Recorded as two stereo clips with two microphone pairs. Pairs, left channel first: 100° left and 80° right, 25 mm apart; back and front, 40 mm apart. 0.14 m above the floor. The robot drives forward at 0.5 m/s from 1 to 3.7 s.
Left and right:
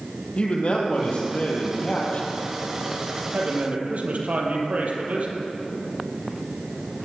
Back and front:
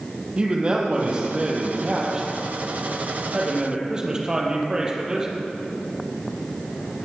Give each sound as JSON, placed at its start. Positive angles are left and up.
{"t": 0.4, "sound": "a man speaking", "azimuth_deg": 60, "distance_m": 4.5}
{"t": 3.3, "sound": "a man speaking", "azimuth_deg": -65, "distance_m": 4.0}